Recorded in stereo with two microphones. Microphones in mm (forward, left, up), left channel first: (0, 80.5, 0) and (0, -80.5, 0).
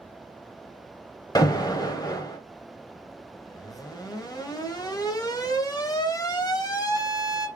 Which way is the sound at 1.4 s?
25° left (ahead or behind).